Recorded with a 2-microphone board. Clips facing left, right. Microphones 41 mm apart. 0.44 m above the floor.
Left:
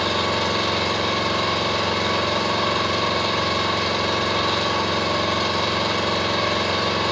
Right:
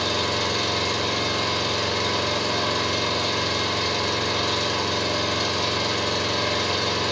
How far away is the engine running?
About 0.8 m.